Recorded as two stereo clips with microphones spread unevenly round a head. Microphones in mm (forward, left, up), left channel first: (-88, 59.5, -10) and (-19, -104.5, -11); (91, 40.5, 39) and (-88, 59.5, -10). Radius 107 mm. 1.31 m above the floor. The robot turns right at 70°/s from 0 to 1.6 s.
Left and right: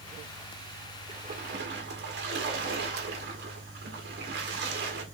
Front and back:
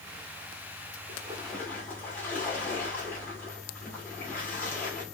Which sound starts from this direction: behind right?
A splash, at 1.1 s.